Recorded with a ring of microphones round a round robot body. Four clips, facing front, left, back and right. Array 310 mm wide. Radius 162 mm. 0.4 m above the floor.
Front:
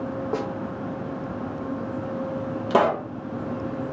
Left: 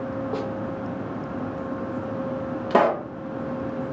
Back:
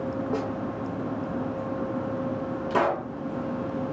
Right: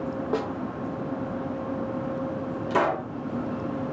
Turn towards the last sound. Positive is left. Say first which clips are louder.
# left 5 dB, front 5 dB
turn(degrees=50)